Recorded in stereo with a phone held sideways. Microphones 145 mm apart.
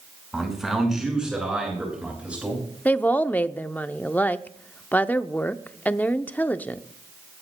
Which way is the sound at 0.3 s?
Centre (ahead or behind).